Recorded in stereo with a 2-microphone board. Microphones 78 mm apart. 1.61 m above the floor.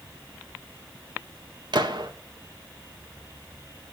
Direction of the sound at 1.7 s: 75° right (ahead or behind).